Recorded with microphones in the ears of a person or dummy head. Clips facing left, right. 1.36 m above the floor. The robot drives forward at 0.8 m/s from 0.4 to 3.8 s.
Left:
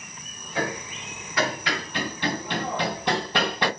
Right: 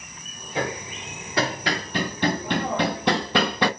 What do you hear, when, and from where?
0.6 s hammering: 20° right (ahead or behind), 3 m; by 3.7 s 70° right (ahead or behind), 1.1 m